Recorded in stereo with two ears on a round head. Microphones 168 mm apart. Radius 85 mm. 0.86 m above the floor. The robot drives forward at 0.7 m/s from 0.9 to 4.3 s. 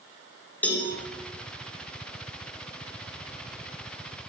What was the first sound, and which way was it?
A cowbell, 10° left (ahead or behind).